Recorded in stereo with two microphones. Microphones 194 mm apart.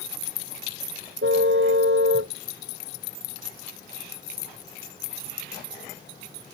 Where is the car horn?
75° right (ahead or behind).